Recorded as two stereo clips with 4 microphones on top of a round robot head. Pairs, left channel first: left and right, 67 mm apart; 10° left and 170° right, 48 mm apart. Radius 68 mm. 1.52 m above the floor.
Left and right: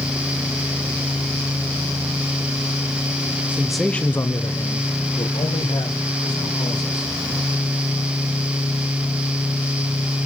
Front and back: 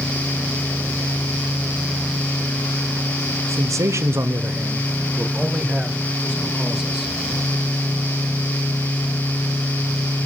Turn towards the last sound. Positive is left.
turn(degrees=105)